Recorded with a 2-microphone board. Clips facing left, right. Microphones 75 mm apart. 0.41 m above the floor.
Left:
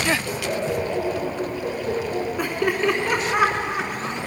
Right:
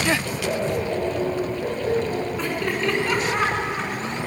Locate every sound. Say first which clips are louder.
0.2 s laughter: even; 35° right (ahead or behind), 9.5 m
2.4 s laughter: left 2 dB; 15° left (ahead or behind), 4 m